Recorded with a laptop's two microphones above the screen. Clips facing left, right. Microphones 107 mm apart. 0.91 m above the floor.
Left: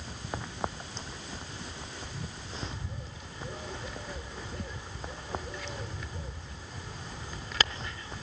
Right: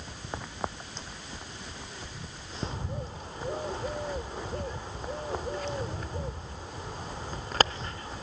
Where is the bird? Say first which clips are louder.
Right 5 dB; 45° right (ahead or behind), 0.7 m.